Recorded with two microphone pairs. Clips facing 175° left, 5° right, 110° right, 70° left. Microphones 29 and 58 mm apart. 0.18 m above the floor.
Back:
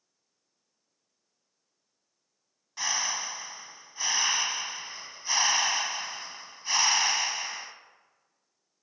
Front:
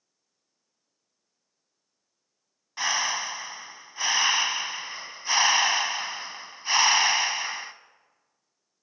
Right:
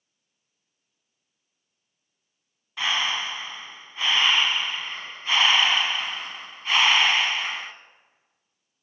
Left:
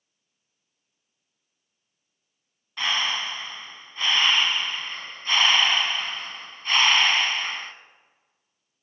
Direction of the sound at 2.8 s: 35° right.